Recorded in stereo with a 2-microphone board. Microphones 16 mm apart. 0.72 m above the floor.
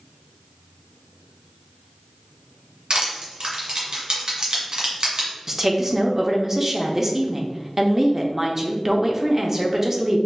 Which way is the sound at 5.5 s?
20° right (ahead or behind).